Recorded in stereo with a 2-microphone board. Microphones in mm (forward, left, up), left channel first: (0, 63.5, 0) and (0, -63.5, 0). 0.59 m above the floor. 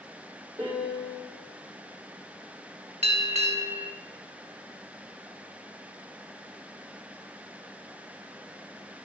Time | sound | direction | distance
0.6 | a piano | 20° right (ahead or behind) | 3.5 m
3.0 | a bell | 60° right (ahead or behind) | 1.4 m